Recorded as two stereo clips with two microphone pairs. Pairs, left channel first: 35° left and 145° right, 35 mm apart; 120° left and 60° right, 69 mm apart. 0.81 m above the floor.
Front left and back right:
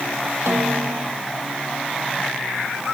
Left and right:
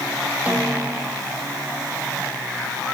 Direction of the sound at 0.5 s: 135° right.